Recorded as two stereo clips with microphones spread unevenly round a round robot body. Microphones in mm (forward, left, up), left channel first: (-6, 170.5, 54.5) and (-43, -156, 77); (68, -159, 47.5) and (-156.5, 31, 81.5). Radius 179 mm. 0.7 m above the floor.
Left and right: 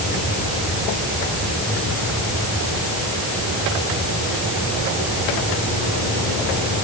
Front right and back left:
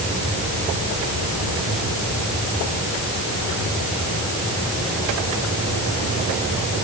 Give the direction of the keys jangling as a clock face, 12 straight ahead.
I don't hear keys jangling.